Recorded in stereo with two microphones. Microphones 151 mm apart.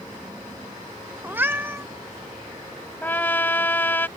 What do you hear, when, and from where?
1.2 s a cat meowing: 15° right (ahead or behind)
3.0 s a trumpet: 15° left (ahead or behind)